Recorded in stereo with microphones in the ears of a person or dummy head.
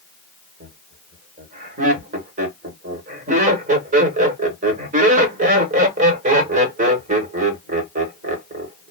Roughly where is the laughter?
Right.